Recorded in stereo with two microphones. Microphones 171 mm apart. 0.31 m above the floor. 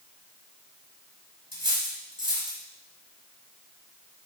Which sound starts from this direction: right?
Cutlery clinking, at 1.5 s.